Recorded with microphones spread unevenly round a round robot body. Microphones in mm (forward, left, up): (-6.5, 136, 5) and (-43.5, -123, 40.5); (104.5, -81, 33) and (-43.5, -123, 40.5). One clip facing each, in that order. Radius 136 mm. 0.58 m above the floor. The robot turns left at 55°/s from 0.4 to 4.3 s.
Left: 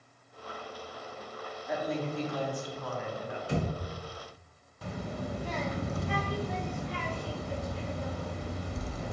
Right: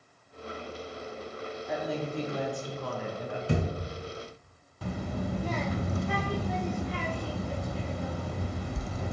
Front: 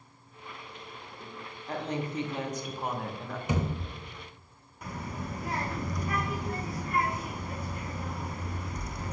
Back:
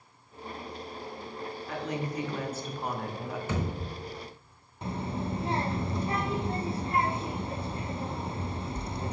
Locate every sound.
1.7 s a woman speaking: 5° left, 0.8 m; by 3.4 s 85° right, 0.8 m
3.5 s a thud: 60° right, 0.9 m; by 3.7 s 70° right, 0.9 m
4.8 s a child speaking: 95° right, 0.5 m